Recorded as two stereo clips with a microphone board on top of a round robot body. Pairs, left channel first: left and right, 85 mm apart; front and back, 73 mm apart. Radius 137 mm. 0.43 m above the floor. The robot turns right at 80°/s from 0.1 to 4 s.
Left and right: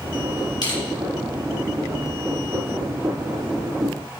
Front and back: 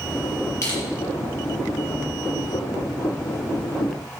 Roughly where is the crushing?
Ahead left.